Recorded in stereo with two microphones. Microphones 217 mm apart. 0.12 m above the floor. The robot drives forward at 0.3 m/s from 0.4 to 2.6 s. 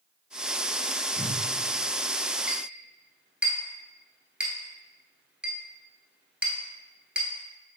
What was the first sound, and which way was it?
A whoosh, centre (ahead or behind).